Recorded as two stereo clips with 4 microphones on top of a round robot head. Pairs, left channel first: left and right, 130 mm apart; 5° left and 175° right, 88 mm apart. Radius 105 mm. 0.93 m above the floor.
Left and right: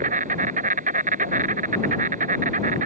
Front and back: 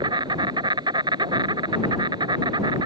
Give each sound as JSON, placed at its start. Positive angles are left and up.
{"t": 0.0, "sound": "an insect", "azimuth_deg": -125}